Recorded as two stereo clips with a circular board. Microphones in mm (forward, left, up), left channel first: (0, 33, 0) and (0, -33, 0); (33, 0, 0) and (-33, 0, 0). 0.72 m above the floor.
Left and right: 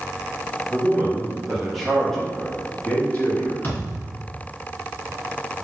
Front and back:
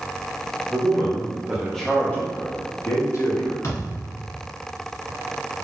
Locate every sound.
0.7 s a man speaking: 150° right, 0.8 m; by 3.5 s 25° left, 1.2 m
3.6 s a thud: 35° left, 1.2 m